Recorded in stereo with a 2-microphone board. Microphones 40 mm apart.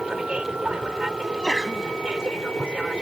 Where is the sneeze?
15° left (ahead or behind).